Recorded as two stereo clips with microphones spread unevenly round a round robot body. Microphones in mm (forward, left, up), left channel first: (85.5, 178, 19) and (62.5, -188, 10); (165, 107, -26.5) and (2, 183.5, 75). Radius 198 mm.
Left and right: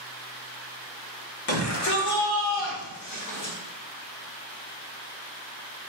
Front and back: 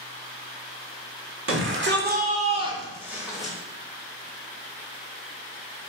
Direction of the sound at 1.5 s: 135° left.